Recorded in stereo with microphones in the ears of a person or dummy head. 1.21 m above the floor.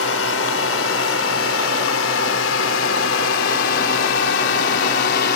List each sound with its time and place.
0.0 s a drone: 80° left; by 5.4 s 65° left (ahead or behind)